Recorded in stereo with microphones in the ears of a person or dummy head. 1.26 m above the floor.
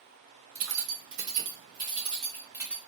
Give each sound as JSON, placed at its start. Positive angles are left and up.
{"t": 0.6, "sound": "keys jangling", "side_deg": -65, "distance_m": 1.1}